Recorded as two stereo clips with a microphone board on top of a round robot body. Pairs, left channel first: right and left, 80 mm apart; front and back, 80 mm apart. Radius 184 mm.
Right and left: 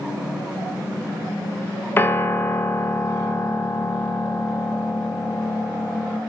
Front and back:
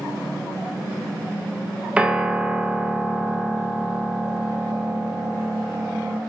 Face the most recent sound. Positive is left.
turn(degrees=-115)